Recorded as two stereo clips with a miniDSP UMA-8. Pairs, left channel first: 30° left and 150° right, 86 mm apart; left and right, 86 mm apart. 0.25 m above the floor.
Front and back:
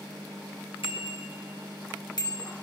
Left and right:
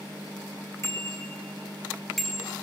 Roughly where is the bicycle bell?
Ahead left.